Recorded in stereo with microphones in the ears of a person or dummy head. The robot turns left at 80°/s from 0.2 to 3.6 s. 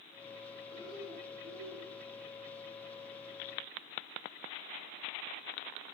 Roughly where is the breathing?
Ahead.